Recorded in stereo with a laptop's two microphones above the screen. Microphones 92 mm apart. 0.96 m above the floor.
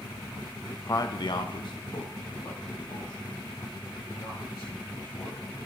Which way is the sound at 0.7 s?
20° left (ahead or behind).